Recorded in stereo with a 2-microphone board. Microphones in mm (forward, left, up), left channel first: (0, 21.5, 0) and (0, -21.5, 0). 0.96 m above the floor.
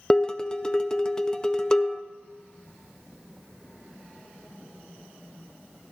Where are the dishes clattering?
15° left (ahead or behind), 0.5 m.